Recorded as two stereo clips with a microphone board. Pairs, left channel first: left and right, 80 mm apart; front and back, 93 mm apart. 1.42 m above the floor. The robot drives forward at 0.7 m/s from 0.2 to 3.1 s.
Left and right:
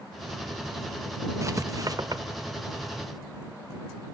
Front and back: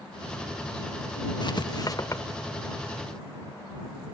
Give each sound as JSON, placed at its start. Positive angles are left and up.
{"t": 1.4, "sound": "writing", "azimuth_deg": -35, "distance_m": 1.4}